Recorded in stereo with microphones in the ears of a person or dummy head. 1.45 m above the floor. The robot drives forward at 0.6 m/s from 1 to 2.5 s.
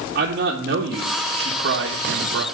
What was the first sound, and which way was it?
A man speaking, 55° right (ahead or behind).